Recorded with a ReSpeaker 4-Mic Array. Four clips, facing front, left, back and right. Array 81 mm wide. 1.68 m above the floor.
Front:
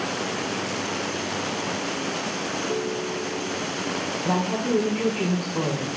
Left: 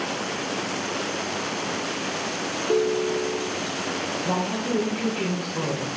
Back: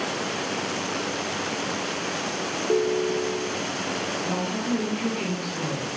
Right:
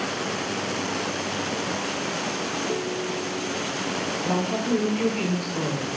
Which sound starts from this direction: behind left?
A ringtone, at 2.7 s.